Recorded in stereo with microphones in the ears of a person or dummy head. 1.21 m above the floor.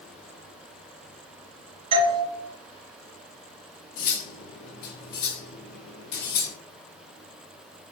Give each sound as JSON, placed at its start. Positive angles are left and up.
{"t": 1.9, "sound": "a doorbell", "side_deg": -30, "distance_m": 1.4}
{"t": 4.0, "sound": "cutlery clinking", "side_deg": 55, "distance_m": 0.5}